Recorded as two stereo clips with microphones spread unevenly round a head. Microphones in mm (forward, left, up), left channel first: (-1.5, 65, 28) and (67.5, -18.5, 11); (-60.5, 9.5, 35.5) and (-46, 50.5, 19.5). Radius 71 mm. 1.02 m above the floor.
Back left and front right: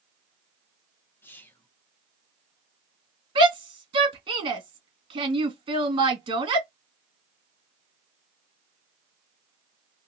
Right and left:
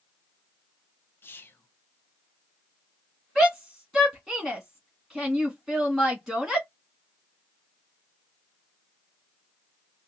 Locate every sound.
1.2 s whispering: 155° right, 1.0 m
3.4 s a shout: 20° right, 1.9 m